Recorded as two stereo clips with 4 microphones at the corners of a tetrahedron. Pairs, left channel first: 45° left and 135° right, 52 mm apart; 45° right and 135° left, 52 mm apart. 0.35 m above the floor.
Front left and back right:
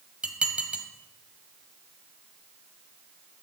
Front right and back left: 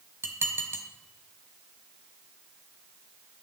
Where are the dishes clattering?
160° left, 1.5 m.